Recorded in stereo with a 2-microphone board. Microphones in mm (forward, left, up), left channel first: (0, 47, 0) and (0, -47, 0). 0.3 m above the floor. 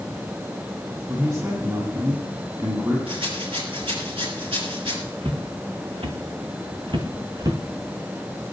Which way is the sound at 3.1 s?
80° right.